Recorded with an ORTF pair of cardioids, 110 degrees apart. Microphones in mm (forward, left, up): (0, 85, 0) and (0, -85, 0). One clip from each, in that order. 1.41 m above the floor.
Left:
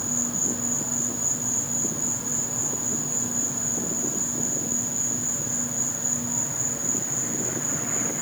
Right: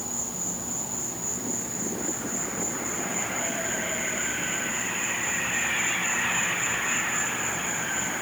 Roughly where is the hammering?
I don't hear hammering.